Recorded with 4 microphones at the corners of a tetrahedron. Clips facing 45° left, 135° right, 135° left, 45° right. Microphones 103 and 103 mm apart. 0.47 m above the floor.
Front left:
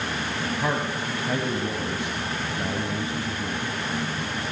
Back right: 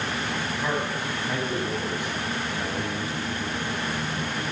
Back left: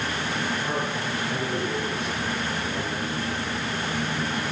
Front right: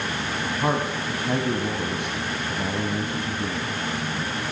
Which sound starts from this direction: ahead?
A man speaking, at 0.6 s.